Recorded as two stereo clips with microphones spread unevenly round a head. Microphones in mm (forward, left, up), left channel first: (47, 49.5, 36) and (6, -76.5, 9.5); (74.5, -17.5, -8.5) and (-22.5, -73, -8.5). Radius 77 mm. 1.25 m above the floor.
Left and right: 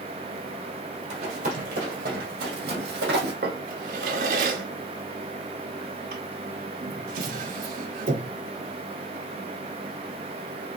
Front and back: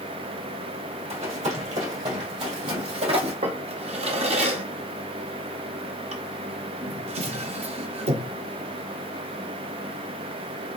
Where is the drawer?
145° right, 0.9 m.